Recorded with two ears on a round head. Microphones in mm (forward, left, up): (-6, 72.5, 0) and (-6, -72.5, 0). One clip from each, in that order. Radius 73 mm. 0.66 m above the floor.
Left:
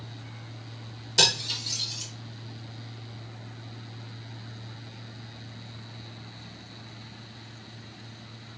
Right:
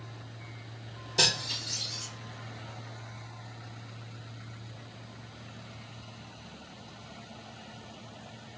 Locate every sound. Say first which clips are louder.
1.2 s cutlery clinking: left 4 dB; 55° left (ahead or behind), 1.4 m